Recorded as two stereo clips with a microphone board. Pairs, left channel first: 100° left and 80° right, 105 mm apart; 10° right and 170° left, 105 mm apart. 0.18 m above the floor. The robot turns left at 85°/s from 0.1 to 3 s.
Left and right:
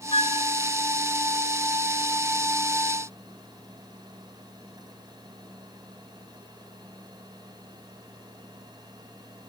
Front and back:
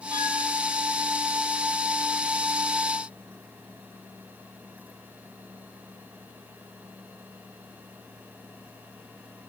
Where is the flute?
125° left, 1.5 m; by 0.4 s 100° left, 1.5 m.